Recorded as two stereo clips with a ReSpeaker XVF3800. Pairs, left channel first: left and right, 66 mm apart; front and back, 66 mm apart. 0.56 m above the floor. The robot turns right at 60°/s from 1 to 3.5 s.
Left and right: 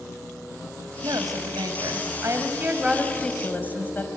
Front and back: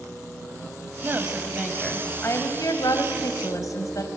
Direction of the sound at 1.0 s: 120° right.